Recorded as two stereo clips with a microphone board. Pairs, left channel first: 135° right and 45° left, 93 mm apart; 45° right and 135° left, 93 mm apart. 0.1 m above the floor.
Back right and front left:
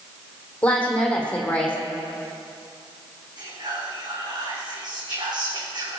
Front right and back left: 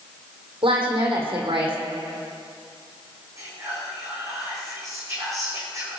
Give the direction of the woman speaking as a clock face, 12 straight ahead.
7 o'clock.